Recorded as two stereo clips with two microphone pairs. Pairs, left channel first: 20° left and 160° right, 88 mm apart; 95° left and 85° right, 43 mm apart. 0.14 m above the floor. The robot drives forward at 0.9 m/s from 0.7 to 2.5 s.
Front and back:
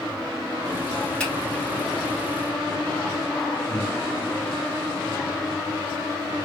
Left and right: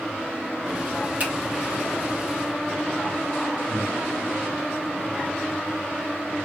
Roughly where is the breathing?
Behind right.